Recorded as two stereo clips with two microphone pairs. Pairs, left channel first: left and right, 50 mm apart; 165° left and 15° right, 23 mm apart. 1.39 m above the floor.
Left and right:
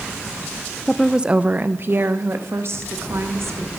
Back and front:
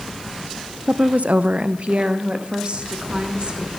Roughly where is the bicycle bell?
I don't hear a bicycle bell.